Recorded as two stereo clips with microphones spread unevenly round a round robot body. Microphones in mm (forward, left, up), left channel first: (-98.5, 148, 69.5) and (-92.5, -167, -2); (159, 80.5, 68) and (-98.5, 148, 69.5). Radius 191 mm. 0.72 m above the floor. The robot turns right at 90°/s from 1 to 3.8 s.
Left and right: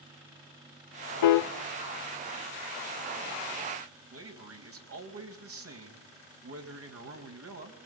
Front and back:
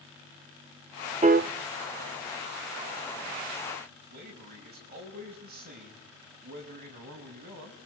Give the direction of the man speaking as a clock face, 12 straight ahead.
4 o'clock.